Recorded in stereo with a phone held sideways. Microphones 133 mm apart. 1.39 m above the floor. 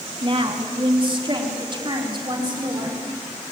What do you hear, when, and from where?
0.2 s a woman speaking: 40° right (ahead or behind), 2.5 m; by 3.0 s 35° right (ahead or behind), 5 m